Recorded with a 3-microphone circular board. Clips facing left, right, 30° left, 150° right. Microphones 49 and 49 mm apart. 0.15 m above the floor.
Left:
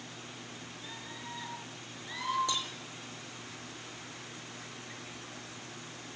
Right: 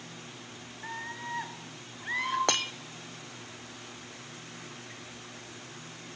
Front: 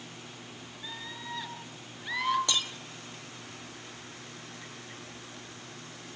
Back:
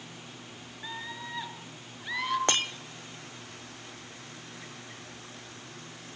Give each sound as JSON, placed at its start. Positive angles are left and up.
{"t": 0.8, "sound": "a scream", "azimuth_deg": -85, "distance_m": 2.5}
{"t": 2.5, "sound": "breaking glass", "azimuth_deg": -110, "distance_m": 0.8}